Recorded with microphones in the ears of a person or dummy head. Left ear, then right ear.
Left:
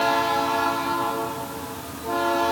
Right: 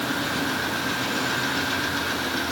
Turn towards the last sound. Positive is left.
No sound to turn to.